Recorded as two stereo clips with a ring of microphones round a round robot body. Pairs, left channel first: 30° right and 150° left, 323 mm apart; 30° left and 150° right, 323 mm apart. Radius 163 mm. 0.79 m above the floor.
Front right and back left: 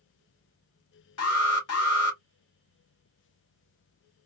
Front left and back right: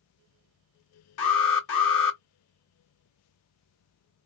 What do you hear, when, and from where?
1.2 s an alarm: 10° left, 2.5 m